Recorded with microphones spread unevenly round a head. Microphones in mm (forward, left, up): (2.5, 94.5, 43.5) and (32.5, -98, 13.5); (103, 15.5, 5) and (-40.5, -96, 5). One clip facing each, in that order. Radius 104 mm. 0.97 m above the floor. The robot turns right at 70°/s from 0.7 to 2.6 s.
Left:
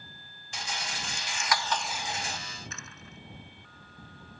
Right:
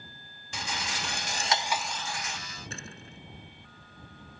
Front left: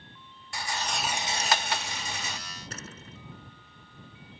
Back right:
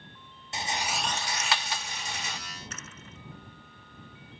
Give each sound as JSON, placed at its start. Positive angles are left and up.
{"t": 0.5, "sound": "a rattle", "azimuth_deg": -70}
{"t": 2.7, "sound": "a door slam", "azimuth_deg": -20}